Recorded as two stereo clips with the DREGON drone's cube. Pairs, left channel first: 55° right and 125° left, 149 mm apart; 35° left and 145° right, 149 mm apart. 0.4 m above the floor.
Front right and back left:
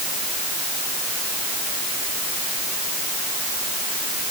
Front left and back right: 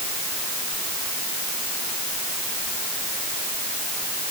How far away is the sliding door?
I don't hear a sliding door.